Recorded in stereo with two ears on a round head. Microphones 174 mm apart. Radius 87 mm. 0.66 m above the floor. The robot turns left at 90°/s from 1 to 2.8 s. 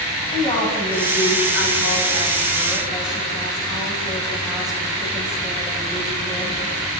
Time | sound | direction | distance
0.3 | a woman speaking | 160° left | 4.5 m